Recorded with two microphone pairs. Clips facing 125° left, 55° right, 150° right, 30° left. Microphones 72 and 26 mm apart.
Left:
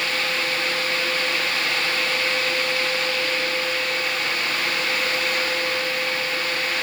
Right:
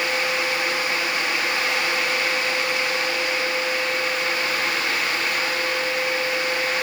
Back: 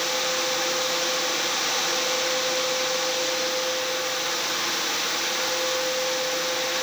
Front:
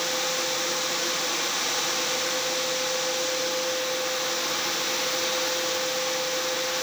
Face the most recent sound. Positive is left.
No sound to turn to.